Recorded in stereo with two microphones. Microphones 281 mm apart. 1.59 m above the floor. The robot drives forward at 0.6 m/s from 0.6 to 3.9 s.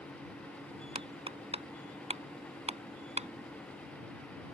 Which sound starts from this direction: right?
Hammering, at 0.9 s.